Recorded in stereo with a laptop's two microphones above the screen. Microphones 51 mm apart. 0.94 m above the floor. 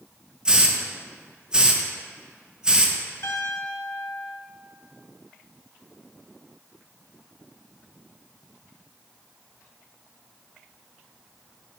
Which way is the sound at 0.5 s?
20° right (ahead or behind).